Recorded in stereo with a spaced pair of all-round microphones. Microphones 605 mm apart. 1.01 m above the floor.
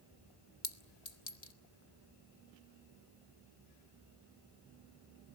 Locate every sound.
0.6 s a clink: 85° left, 1.5 m